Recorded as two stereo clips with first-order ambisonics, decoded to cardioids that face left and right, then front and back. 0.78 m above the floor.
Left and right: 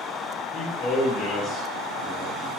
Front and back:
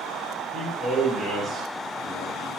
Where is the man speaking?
85° left, 0.6 m.